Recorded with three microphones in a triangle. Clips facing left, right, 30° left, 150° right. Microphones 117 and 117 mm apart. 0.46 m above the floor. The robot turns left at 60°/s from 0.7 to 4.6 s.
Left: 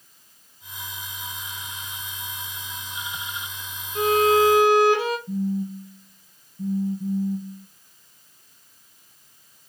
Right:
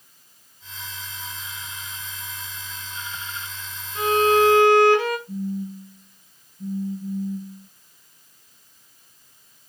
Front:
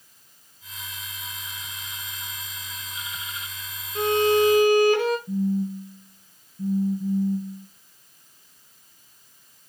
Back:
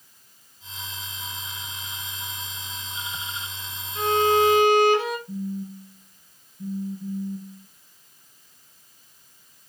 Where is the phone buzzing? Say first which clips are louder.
Left 3 dB, front 7 dB; 45° left, 0.6 m.